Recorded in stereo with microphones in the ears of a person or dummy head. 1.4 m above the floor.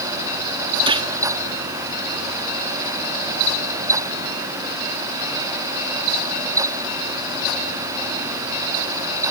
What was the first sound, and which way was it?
A gunshot, 25° right (ahead or behind).